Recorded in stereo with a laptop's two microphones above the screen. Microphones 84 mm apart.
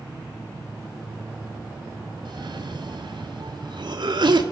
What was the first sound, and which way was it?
A cough, 60° right (ahead or behind).